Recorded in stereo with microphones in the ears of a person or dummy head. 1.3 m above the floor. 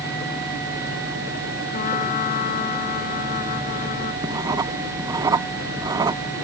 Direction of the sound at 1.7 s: 45° left (ahead or behind).